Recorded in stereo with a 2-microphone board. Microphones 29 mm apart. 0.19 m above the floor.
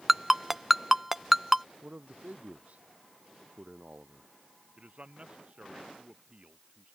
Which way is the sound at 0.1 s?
5° right (ahead or behind).